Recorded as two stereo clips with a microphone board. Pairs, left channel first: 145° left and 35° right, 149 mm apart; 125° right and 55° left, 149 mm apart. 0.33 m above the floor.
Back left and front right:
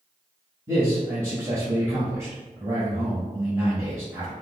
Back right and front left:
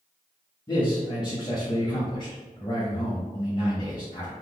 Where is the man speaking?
95° right, 1.1 m.